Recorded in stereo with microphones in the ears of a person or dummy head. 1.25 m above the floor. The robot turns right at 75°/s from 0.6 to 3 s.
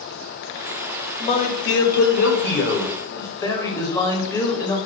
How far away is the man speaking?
About 1.6 m.